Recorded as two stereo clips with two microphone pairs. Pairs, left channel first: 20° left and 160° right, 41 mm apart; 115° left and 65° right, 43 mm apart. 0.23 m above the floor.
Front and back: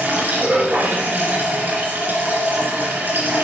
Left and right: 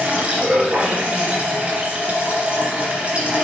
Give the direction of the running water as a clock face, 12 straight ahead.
4 o'clock.